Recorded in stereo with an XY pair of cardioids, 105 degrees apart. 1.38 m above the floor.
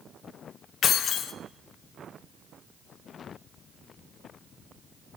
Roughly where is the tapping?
No tapping in this recording.